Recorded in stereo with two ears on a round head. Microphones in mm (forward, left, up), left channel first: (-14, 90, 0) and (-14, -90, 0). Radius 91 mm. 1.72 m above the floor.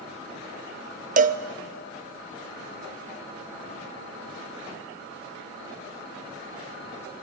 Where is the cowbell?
40° right (ahead or behind), 0.5 m.